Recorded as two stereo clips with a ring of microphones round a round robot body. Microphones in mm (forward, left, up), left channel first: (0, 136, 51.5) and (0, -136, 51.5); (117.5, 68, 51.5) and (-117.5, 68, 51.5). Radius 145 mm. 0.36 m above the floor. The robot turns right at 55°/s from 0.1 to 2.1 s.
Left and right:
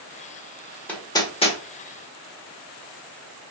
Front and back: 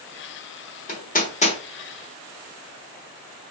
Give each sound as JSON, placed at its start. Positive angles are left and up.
{"t": 0.9, "sound": "hammering", "azimuth_deg": 10, "distance_m": 1.1}